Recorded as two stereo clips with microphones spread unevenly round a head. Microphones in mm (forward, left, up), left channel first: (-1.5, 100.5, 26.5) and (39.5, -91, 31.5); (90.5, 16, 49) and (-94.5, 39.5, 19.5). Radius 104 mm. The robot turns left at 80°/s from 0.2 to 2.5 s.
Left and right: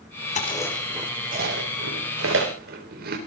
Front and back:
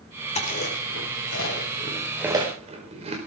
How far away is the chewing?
About 4 m.